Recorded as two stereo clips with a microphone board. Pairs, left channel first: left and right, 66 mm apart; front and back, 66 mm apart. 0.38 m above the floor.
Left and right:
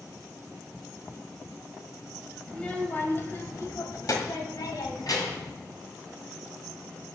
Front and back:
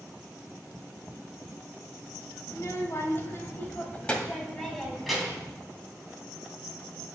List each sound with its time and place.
2.5 s a child speaking: 15° left, 1.6 m; by 5.5 s 95° left, 2.5 m